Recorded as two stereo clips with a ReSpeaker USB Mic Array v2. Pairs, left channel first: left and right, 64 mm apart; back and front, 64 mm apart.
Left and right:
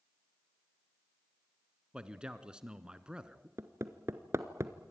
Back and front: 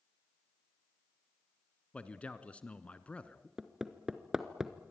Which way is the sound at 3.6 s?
80° right.